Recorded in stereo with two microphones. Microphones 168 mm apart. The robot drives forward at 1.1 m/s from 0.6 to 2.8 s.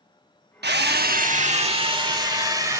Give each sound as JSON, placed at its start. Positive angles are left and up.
{"t": 0.6, "sound": "a drill", "side_deg": -70, "distance_m": 0.8}